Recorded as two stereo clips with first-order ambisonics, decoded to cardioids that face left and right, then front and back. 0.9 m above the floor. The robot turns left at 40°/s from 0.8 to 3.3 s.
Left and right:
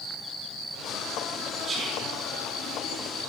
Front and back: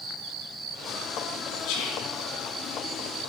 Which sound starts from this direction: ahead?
Whispering, at 1.6 s.